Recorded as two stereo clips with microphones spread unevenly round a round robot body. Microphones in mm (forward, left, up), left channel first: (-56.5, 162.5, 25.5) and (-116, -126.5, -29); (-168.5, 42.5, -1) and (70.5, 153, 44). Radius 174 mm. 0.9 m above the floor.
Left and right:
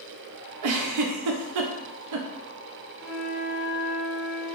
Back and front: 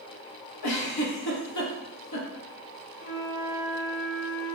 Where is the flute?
165° left, 1.4 m.